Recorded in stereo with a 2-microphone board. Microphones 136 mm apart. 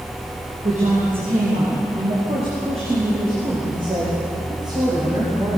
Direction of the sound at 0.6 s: 60° right (ahead or behind).